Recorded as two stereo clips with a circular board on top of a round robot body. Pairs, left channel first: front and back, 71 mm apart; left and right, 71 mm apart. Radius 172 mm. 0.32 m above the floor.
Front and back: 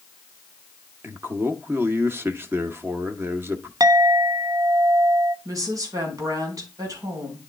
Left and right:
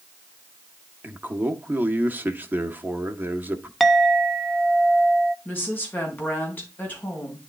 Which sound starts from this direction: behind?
A clink, at 3.8 s.